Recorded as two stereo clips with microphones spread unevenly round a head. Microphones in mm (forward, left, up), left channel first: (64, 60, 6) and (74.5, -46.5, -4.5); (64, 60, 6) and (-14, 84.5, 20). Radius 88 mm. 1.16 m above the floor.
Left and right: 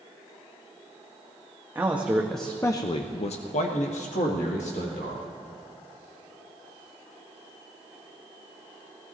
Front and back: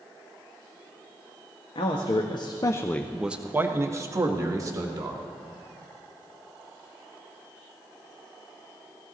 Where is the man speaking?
10° right, 1.3 m; by 5.2 s 125° left, 2.5 m.